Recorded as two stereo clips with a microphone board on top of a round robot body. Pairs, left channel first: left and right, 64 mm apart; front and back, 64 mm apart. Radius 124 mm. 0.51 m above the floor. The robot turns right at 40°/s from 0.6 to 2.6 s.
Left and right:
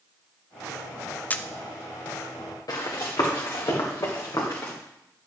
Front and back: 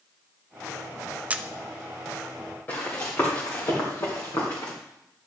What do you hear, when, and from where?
1.3 s a camera shutter: 130° left, 0.7 m; by 1.5 s 140° left, 0.7 m
2.7 s running footsteps: 60° left, 4 m; by 4.7 s 45° left, 3 m